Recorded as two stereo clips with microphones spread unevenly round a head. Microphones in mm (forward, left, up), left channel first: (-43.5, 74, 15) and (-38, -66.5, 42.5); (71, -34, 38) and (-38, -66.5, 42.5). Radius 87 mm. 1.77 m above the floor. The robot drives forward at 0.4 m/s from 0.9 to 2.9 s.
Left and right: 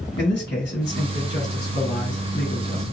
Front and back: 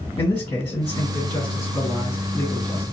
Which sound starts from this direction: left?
A man speaking, at 0.2 s.